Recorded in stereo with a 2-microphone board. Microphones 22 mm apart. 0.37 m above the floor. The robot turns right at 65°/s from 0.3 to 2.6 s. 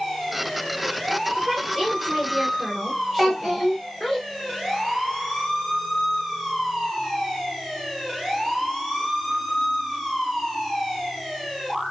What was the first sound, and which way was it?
A woman speaking, 70° right.